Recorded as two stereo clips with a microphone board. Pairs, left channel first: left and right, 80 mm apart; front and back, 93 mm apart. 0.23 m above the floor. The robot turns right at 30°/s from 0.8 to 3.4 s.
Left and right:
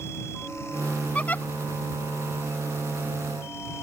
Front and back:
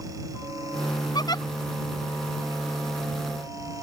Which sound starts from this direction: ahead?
A giggle, at 1.1 s.